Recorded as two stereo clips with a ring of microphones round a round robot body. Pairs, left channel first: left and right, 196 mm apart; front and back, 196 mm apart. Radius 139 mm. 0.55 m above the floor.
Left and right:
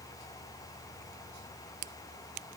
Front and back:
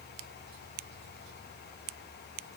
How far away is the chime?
No chime in this recording.